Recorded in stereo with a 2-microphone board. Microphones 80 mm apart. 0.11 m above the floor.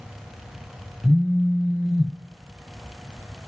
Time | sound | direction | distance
1.0 | a phone buzzing | 15° left (ahead or behind) | 0.6 m